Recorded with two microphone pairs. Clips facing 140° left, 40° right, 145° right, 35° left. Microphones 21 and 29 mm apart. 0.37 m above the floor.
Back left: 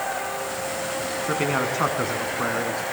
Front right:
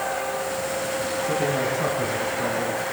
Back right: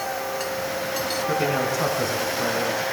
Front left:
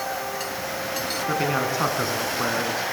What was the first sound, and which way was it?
A man speaking, 110° left.